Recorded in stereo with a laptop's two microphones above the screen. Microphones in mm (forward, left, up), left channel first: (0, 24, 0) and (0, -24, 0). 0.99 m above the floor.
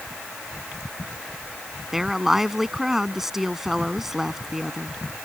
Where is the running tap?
No running tap in this recording.